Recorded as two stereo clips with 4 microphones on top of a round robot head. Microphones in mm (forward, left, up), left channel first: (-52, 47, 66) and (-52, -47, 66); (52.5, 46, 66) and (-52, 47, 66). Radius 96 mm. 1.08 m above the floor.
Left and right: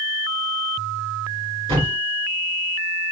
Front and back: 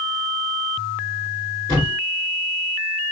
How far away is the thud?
About 2 m.